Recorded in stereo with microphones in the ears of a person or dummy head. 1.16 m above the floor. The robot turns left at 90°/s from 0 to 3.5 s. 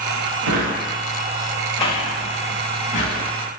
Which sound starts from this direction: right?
A drawer, at 0.4 s.